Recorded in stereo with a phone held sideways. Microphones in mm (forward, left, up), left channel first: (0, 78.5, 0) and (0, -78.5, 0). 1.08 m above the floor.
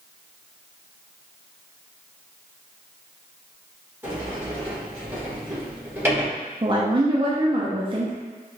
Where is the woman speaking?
35° right (ahead or behind), 0.5 m.